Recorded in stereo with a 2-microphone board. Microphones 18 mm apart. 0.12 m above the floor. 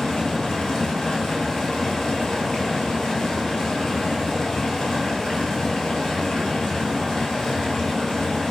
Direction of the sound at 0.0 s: 55° left (ahead or behind).